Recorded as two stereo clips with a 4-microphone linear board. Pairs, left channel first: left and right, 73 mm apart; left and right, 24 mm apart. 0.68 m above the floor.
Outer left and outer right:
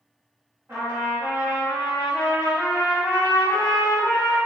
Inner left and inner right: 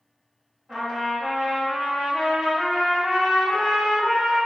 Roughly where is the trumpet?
Right.